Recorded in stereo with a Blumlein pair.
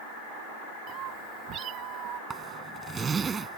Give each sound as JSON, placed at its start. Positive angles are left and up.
{"t": 0.9, "sound": "a cat meowing", "azimuth_deg": -35}
{"t": 2.3, "sound": "a zipper", "azimuth_deg": -20}